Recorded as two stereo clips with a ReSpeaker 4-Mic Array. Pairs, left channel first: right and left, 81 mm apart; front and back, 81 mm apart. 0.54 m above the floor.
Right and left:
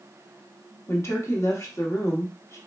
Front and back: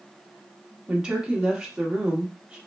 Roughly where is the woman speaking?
Right.